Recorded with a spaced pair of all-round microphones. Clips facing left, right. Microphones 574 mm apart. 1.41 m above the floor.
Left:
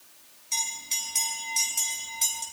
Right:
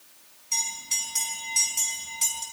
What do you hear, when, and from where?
0.5 s a bell: 35° right (ahead or behind), 5 m